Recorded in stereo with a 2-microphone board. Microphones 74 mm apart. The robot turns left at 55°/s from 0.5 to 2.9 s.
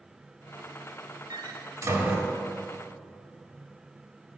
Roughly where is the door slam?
Right.